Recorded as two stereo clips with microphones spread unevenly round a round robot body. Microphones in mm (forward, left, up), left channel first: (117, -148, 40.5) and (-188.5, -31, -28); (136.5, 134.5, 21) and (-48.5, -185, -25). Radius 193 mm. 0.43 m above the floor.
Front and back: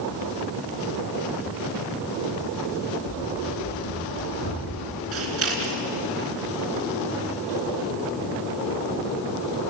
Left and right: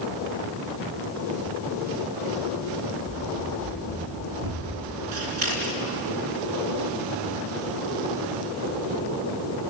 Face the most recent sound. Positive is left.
turn(degrees=-155)